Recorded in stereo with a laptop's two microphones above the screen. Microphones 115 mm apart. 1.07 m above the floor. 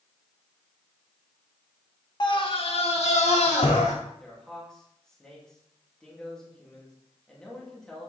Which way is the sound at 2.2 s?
40° left (ahead or behind).